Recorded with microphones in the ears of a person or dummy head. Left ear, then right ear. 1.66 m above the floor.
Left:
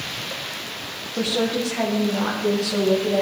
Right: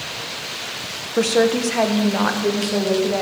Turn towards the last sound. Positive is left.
turn(degrees=-15)  # may be behind; listen again after turning